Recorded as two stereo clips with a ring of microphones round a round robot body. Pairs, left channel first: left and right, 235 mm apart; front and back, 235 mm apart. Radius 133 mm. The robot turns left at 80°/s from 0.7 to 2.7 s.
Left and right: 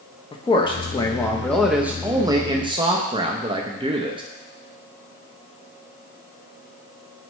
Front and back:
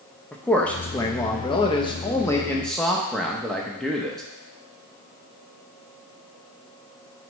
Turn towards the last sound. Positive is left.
turn(degrees=-85)